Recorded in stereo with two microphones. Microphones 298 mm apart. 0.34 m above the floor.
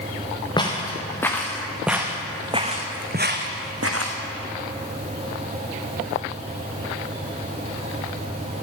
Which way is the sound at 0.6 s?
15° left (ahead or behind).